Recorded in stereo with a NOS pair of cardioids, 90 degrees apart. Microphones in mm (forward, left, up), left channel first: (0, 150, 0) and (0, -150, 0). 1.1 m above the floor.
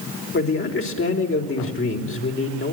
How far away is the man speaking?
About 4 m.